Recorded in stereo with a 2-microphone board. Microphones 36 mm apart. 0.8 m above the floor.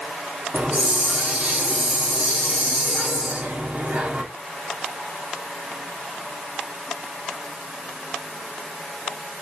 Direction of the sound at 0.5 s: 50° right (ahead or behind).